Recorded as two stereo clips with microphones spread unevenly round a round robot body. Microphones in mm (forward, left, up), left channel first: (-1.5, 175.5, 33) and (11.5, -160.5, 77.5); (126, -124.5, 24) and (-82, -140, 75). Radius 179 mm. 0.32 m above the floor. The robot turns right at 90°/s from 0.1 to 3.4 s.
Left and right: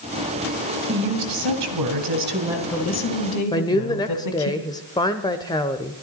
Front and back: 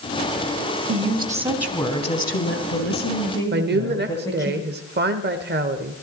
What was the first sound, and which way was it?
A woman speaking, 150° right.